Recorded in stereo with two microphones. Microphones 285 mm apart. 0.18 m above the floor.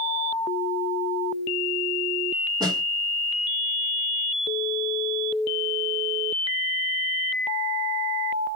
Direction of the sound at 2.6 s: 15° right (ahead or behind).